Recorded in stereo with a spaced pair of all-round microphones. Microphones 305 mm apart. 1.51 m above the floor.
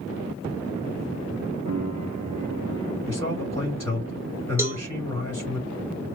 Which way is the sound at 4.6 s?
10° right (ahead or behind).